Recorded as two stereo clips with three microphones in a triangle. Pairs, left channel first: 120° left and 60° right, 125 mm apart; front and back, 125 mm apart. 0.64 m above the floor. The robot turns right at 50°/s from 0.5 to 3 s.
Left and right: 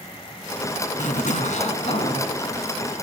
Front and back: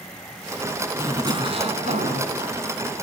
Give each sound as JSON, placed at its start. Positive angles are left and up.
{"t": 1.0, "sound": "a zipper", "azimuth_deg": 110, "distance_m": 1.9}